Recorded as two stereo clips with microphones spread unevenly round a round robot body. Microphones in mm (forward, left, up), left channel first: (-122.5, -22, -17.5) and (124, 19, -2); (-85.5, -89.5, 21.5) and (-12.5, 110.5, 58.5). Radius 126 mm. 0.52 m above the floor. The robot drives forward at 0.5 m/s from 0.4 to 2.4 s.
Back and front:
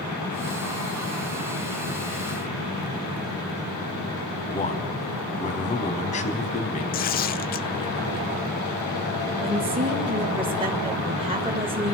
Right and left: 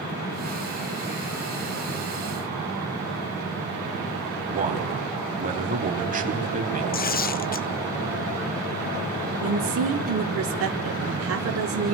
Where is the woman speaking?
80° left, 2.5 m.